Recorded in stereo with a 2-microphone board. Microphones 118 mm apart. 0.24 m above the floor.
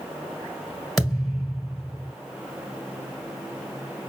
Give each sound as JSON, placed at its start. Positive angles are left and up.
{"t": 1.0, "sound": "a thud", "side_deg": 0, "distance_m": 1.6}